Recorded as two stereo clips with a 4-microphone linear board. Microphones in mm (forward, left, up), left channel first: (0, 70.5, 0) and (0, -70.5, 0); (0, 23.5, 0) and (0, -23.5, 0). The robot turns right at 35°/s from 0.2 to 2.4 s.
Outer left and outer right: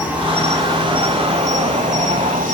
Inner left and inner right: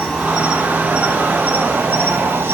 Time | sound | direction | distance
0.0 | an insect | 170° right | 2.5 m